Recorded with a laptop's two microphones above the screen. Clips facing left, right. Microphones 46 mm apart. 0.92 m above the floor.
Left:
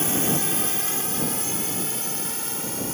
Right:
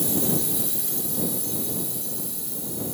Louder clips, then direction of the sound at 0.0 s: Left 1 dB; 55° left (ahead or behind).